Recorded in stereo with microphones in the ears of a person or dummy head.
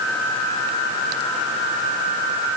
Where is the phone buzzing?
I don't hear a phone buzzing.